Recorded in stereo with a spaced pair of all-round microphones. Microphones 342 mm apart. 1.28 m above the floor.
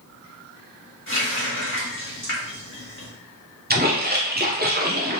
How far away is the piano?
No piano in this recording.